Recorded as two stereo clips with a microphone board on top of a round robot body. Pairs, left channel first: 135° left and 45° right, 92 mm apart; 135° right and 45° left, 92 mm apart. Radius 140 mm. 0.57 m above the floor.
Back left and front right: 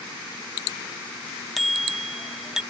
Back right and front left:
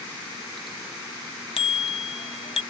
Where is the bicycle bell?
135° right; by 2.6 s 130° right.